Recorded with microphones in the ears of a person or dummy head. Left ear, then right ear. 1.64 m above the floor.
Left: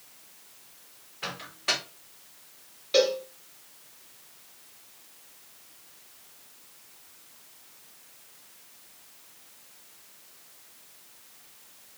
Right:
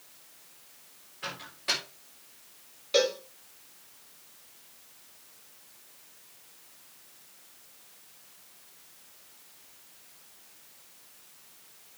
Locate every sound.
1.2 s a microwave: 25° left (ahead or behind), 4.5 m
2.9 s a cowbell: centre (ahead or behind), 2 m